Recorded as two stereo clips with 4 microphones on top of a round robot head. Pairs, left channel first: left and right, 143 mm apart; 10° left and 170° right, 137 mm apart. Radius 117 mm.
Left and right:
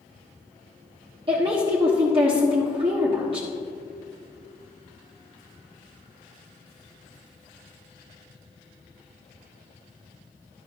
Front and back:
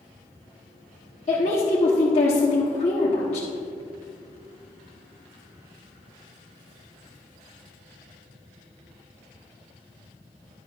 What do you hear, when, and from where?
1.3 s a woman speaking: 40° right, 1.2 m